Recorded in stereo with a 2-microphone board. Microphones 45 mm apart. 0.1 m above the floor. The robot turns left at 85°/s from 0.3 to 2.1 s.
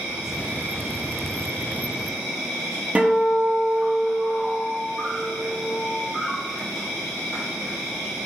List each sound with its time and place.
0.0 s an insect: 20° right, 1.1 m; by 8.3 s 175° right, 1.1 m
3.0 s a guitar: 35° right (ahead or behind), 0.8 m